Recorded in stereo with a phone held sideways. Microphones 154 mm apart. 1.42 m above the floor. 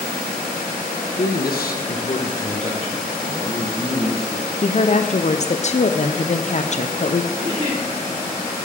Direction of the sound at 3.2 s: 20° left (ahead or behind).